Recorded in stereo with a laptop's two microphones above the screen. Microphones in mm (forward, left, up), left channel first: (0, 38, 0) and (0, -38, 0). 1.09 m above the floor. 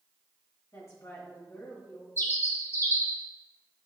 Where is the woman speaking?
40° left (ahead or behind), 1.8 m.